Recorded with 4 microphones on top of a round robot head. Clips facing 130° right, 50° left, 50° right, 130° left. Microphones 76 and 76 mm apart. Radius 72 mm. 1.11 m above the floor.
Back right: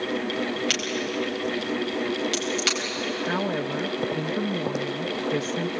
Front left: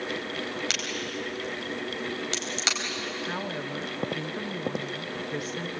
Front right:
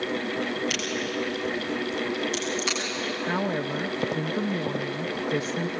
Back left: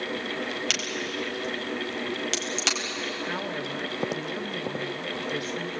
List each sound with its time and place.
0.7 s a crack: 120° left, 4 m
3.2 s a woman speaking: 95° right, 0.7 m